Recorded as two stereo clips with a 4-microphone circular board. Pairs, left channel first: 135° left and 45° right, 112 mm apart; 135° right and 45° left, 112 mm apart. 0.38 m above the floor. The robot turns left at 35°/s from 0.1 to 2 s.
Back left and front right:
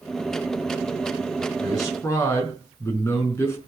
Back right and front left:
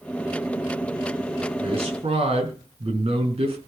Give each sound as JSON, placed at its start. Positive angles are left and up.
{"t": 1.6, "sound": "a man speaking", "azimuth_deg": 85, "distance_m": 4.5}